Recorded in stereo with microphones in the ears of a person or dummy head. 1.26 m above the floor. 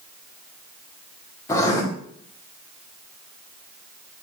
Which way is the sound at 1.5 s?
15° left (ahead or behind).